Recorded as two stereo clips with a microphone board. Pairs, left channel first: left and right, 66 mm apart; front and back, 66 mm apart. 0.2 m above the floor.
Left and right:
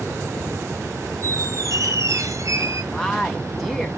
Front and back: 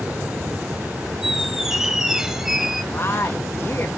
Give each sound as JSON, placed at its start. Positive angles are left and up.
{"t": 1.2, "sound": "a squeak", "azimuth_deg": -100, "distance_m": 0.9}
{"t": 2.9, "sound": "a woman speaking", "azimuth_deg": 5, "distance_m": 1.7}